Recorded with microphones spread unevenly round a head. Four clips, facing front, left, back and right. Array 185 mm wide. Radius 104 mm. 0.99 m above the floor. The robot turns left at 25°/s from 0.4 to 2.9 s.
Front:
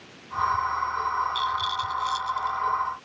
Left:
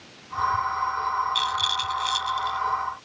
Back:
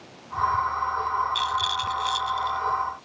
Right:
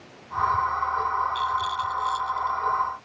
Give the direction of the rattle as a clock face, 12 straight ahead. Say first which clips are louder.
Right 2 dB, back 1 dB; 8 o'clock.